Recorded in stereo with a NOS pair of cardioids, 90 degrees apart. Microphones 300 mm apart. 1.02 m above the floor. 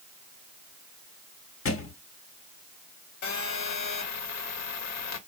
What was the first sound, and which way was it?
A thud, 50° left.